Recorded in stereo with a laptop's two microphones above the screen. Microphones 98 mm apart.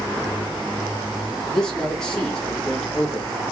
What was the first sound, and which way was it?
A man speaking, 5° left (ahead or behind).